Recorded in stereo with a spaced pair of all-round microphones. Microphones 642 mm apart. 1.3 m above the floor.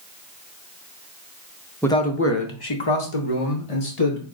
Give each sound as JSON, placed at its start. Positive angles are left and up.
{"t": 1.8, "sound": "a man speaking", "side_deg": 5, "distance_m": 0.8}